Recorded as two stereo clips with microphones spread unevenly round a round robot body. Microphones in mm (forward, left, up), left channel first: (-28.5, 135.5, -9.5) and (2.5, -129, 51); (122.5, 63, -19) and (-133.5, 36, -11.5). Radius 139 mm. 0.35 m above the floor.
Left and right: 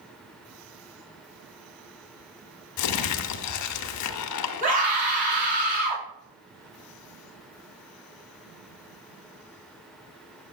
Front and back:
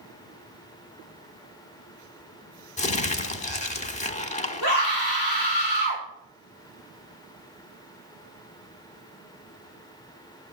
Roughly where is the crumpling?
Left.